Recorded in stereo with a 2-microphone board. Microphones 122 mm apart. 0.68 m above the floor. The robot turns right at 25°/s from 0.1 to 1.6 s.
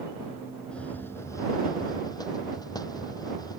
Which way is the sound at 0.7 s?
10° left (ahead or behind).